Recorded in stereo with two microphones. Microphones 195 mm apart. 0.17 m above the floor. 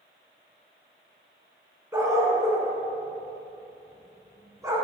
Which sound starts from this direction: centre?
A dog barking, at 1.9 s.